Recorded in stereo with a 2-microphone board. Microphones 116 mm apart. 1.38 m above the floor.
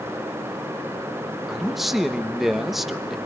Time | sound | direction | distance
1.5 | a man speaking | centre (ahead or behind) | 1.2 m